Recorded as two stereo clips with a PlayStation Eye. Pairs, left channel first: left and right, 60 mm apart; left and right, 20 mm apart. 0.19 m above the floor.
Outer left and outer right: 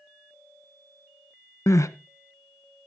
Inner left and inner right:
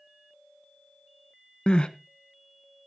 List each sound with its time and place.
1.7 s crying: 55° left (ahead or behind), 0.6 m